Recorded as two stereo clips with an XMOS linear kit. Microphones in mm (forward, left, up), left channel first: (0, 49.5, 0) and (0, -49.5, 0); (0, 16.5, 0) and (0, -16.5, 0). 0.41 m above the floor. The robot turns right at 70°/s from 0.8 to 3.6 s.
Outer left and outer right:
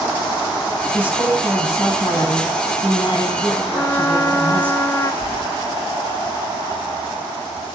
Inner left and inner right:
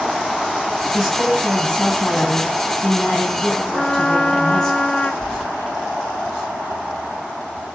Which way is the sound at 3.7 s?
30° left (ahead or behind).